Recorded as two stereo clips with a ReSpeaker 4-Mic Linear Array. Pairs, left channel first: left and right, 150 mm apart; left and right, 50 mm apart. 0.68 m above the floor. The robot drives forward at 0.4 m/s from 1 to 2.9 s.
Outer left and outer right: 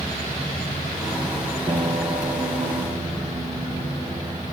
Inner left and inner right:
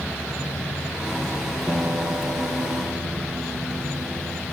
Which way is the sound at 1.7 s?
40° right (ahead or behind).